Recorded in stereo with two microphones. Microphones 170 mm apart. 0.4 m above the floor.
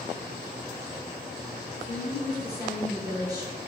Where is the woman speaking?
20° right (ahead or behind), 1.0 m.